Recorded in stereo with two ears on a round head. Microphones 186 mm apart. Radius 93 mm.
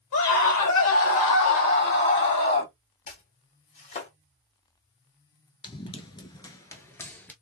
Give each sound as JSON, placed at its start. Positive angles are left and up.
{"t": 0.1, "sound": "a scream", "side_deg": 70, "distance_m": 2.5}
{"t": 3.1, "sound": "chopping", "side_deg": 35, "distance_m": 2.5}
{"t": 5.6, "sound": "running footsteps", "side_deg": 25, "distance_m": 1.0}